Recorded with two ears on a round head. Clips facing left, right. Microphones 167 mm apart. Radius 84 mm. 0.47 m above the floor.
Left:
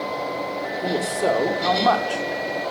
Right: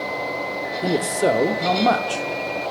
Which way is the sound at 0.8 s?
20° right (ahead or behind).